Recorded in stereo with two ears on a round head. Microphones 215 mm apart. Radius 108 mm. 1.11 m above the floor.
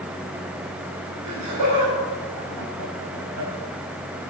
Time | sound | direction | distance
1.2 | laughter | 80° right | 5.5 m